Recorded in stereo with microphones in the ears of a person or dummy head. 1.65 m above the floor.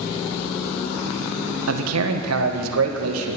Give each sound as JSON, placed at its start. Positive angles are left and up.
{"t": 1.7, "sound": "a man speaking", "side_deg": -85, "distance_m": 1.4}